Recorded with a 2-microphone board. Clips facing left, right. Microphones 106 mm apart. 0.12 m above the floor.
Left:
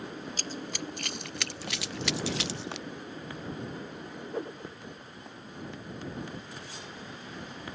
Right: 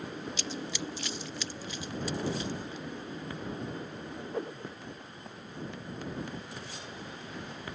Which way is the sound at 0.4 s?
45° left (ahead or behind).